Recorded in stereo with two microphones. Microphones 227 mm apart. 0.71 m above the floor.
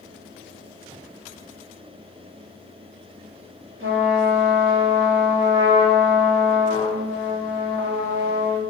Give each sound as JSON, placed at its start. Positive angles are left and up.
{"t": 3.8, "sound": "a trumpet", "side_deg": -65, "distance_m": 0.6}